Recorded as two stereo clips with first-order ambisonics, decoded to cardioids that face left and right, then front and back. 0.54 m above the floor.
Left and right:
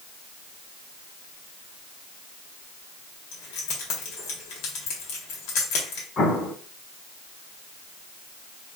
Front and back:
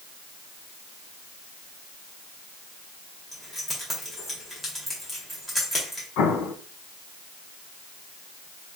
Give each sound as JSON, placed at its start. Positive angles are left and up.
{"t": 3.3, "sound": "keys jangling", "azimuth_deg": 80, "distance_m": 1.5}
{"t": 6.2, "sound": "an explosion", "azimuth_deg": 30, "distance_m": 0.8}